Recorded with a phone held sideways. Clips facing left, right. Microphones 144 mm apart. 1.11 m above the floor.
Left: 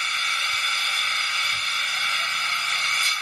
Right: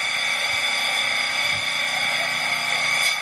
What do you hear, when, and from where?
0.0 s an engine running: 55° right (ahead or behind)